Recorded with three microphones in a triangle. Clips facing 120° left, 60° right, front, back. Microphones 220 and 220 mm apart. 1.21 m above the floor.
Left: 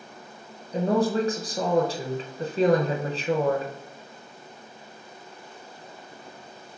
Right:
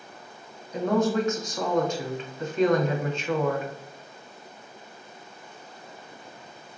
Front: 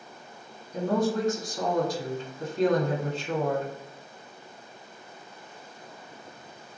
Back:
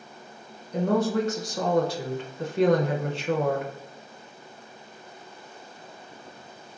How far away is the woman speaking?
About 0.8 m.